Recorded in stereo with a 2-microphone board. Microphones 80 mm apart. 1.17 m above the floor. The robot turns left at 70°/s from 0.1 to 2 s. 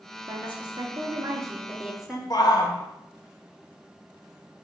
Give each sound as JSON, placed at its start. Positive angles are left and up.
{"t": 0.3, "sound": "a woman speaking", "azimuth_deg": -55, "distance_m": 1.9}
{"t": 2.3, "sound": "a shout", "side_deg": 55, "distance_m": 1.0}